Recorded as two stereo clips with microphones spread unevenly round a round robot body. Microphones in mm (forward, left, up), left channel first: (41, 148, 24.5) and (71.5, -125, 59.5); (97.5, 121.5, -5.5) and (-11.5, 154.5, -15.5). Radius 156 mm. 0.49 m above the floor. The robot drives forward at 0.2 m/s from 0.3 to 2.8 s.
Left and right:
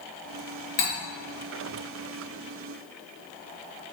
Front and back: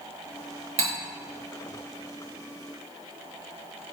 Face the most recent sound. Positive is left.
turn(degrees=160)